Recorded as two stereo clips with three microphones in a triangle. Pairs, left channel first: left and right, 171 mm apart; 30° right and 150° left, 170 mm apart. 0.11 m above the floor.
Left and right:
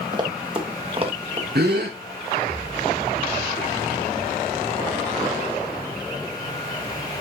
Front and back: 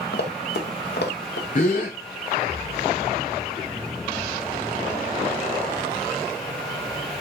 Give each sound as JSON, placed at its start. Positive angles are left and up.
{"t": 0.1, "sound": "running footsteps", "azimuth_deg": -25, "distance_m": 3.0}
{"t": 1.6, "sound": "a gasp", "azimuth_deg": -70, "distance_m": 4.0}